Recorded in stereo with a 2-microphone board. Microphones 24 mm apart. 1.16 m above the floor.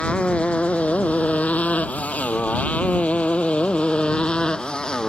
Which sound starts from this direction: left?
A motorcycle, at 0.0 s.